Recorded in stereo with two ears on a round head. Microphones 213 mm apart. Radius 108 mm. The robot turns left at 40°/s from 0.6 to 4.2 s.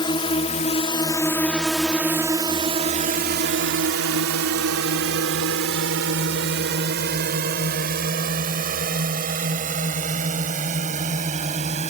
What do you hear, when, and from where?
0.0 s a drone: 20° left (ahead or behind); by 11.9 s 30° right (ahead or behind)